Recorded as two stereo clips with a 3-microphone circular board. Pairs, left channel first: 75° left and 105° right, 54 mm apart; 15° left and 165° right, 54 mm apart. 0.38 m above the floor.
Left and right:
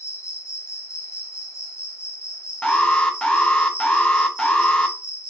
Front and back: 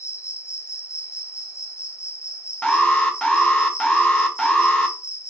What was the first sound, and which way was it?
An insect, 40° left.